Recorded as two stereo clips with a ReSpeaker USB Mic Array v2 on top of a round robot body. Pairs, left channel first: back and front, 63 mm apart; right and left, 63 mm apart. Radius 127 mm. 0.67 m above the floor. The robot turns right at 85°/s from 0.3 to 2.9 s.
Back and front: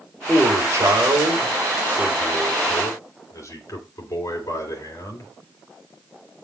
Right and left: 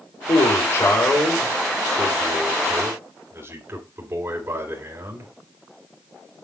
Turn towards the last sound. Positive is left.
turn(degrees=145)